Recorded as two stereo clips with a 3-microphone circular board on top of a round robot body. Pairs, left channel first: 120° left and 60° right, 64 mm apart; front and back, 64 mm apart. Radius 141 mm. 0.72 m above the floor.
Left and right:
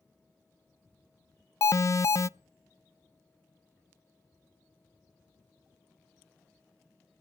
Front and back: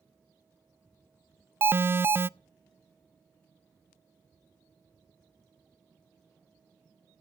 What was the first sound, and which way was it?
An alarm, 135° left.